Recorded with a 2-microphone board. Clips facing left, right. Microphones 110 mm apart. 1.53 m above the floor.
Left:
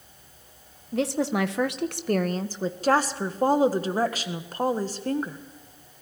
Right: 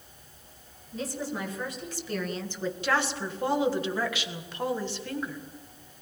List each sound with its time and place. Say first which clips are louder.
0.9 s a woman speaking: left 9 dB; 75° left (ahead or behind), 1.5 m; by 2.7 s 30° left (ahead or behind), 1.2 m
2.8 s a woman speaking: left 6 dB; 40° left (ahead or behind), 1.5 m